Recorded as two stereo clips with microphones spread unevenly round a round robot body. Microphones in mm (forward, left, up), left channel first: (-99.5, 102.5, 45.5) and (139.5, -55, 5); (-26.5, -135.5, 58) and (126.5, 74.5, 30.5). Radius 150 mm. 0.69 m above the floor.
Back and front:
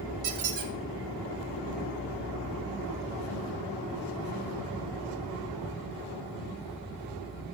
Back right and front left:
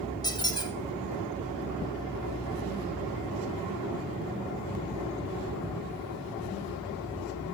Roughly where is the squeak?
Ahead right.